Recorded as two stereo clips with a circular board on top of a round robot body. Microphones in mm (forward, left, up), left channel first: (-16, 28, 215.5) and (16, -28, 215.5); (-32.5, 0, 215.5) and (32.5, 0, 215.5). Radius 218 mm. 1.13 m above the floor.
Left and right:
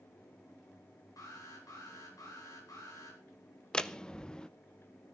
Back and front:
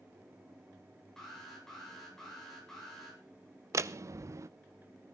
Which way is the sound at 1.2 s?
95° left.